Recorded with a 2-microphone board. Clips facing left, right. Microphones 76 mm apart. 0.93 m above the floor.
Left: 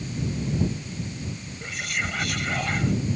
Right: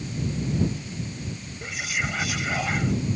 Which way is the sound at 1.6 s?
5° right (ahead or behind).